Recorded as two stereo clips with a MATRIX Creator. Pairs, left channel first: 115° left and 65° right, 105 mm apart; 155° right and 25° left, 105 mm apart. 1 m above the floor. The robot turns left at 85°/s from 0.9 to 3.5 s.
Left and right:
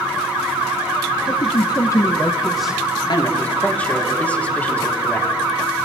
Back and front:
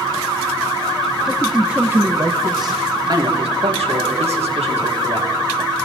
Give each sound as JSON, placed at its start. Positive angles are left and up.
{"t": 1.3, "sound": "a man speaking", "azimuth_deg": 135, "distance_m": 0.8}
{"t": 3.1, "sound": "a man speaking", "azimuth_deg": 70, "distance_m": 2.5}